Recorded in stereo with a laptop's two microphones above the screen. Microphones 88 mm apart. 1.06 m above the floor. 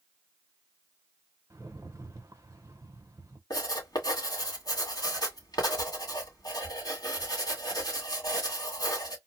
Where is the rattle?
35° right (ahead or behind), 0.9 m.